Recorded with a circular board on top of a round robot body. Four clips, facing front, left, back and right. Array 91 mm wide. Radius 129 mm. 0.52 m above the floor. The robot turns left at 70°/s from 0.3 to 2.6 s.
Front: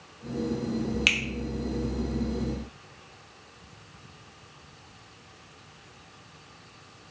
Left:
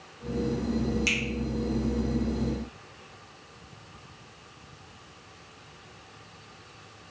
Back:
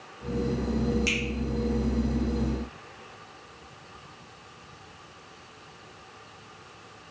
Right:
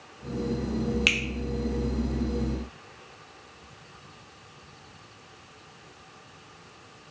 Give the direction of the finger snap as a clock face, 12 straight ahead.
1 o'clock.